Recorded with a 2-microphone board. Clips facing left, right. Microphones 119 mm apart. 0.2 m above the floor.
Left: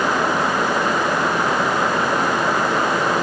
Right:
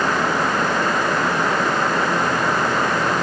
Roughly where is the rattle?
I don't hear a rattle.